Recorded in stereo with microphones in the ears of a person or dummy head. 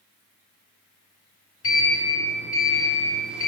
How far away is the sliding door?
About 1.8 m.